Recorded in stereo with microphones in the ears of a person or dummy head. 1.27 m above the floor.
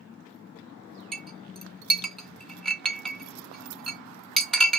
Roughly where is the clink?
Centre.